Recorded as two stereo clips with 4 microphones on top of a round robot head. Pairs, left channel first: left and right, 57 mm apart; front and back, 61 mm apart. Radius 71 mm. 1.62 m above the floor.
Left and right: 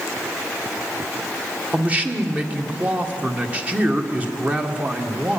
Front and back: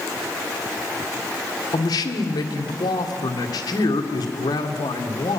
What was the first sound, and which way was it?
A man speaking, 25° right.